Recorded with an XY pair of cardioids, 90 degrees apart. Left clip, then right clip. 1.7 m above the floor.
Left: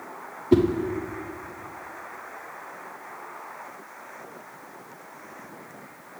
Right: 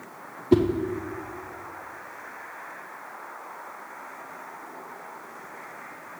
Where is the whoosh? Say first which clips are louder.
Left 1 dB; 10° right, 0.7 m.